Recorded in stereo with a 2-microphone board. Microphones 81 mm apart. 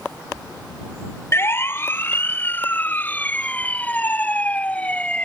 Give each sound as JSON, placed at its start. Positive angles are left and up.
{"t": 1.3, "sound": "a siren", "side_deg": 35}